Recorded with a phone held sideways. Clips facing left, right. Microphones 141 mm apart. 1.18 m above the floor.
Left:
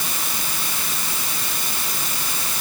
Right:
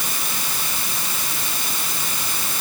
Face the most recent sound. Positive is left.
No sound to turn to.